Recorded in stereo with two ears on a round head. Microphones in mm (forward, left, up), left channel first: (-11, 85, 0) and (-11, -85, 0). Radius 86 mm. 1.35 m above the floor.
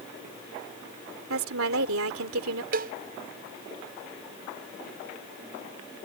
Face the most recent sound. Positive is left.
turn(degrees=-45)  # may be behind; listen again after turning